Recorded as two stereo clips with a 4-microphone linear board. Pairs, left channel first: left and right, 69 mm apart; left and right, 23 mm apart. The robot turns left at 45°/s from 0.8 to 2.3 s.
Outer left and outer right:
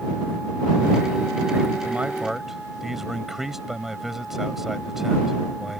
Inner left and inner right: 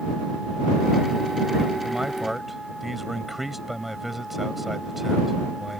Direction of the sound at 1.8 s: 25° right (ahead or behind).